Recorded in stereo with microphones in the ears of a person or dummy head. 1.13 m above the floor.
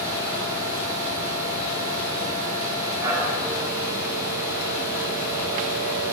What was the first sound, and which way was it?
A machine running, 15° right (ahead or behind).